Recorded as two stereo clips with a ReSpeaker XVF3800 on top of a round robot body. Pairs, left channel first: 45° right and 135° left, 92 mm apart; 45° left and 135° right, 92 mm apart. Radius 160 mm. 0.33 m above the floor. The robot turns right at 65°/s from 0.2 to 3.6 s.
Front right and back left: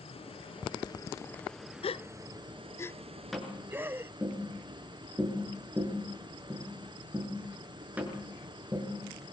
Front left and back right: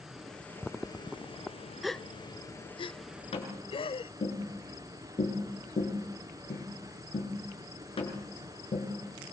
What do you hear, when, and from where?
0.0 s running water: 50° right, 4 m; by 9.3 s 175° left, 4 m
1.8 s a gasp: 45° right, 0.7 m; by 4.1 s 70° left, 0.7 m
3.3 s tapping: 45° left, 6.5 m; by 8.9 s 60° left, 6.5 m